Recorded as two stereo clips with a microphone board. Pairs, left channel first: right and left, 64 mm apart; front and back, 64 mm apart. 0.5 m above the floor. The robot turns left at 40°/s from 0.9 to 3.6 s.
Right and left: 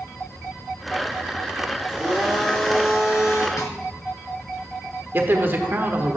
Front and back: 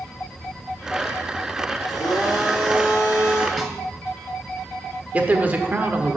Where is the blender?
10° left, 3.5 m; by 3.5 s 50° right, 3.5 m.